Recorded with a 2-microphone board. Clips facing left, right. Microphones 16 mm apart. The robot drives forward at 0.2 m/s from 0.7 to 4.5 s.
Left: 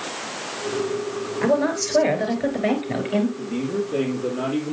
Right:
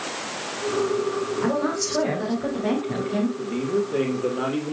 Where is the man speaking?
5° left (ahead or behind), 3 m.